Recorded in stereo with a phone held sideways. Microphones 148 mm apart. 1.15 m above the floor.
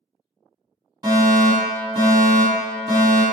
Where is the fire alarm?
30° right (ahead or behind), 1.7 m.